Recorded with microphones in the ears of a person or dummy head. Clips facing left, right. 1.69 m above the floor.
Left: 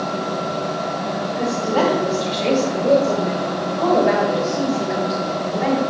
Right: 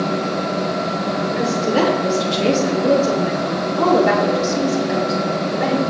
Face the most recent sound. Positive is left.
turn(degrees=-85)